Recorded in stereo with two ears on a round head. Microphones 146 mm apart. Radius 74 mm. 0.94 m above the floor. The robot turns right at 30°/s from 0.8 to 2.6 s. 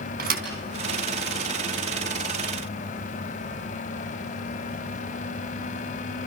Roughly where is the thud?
Right.